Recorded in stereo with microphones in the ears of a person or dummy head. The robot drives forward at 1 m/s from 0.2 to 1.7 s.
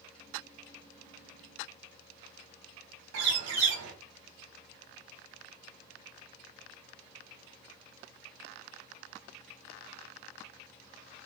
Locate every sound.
3.1 s a bird: 60° right (ahead or behind), 1.7 m